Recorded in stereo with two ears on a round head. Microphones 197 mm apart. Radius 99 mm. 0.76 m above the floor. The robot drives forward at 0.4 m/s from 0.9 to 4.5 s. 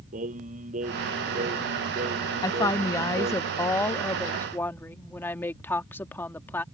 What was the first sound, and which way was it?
Singing, 35° right (ahead or behind).